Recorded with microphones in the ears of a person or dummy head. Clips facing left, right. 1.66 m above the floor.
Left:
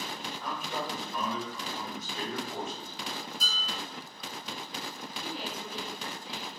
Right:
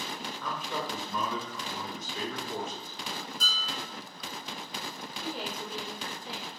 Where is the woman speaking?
45° right (ahead or behind), 1.1 m.